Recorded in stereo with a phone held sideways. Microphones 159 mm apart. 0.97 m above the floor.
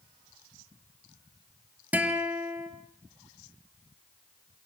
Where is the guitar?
10° right (ahead or behind), 3 m.